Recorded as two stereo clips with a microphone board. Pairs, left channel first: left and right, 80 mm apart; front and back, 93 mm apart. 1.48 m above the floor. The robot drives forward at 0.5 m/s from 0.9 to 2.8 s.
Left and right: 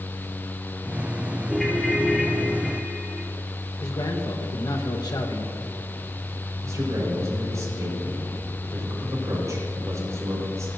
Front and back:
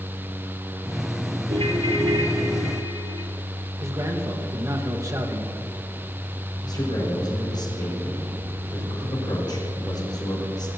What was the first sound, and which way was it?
A ringtone, straight behind.